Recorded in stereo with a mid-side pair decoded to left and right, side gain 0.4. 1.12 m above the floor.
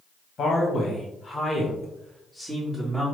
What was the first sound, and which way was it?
A man speaking, 60° left.